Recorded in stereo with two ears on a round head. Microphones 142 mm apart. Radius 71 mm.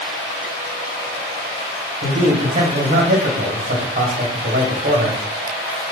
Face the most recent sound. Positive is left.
turn(degrees=-45)  # may be behind; listen again after turning